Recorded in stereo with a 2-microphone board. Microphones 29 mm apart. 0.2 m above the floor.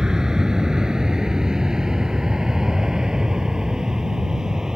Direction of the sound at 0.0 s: 20° right (ahead or behind).